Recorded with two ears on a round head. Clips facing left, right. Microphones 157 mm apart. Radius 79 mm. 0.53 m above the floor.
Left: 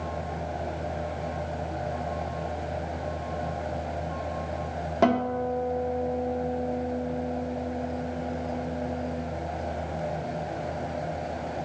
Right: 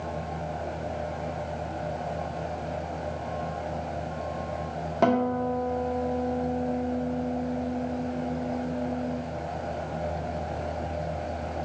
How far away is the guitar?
About 1.2 m.